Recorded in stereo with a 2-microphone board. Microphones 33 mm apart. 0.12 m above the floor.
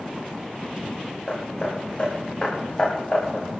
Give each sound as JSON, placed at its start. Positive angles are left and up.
{"t": 1.3, "sound": "hammering", "side_deg": 35, "distance_m": 8.5}